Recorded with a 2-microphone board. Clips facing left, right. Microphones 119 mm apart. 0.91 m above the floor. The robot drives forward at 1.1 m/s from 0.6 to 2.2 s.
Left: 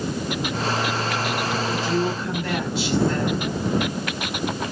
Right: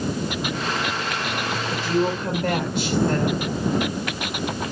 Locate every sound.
1.7 s a woman speaking: 60° right (ahead or behind), 4 m; by 3.4 s 55° right (ahead or behind), 4 m